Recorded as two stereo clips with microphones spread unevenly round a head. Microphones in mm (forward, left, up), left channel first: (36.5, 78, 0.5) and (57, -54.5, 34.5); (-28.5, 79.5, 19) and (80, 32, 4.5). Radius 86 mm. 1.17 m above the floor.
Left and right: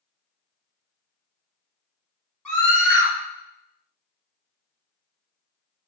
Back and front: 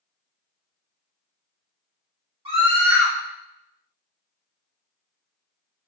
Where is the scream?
15° left, 1.6 m.